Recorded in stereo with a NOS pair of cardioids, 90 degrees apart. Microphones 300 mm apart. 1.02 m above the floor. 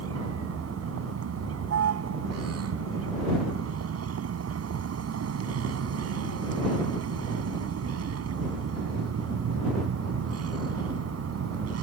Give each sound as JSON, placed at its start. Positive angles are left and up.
{"t": 0.0, "sound": "a vehicle", "azimuth_deg": -55}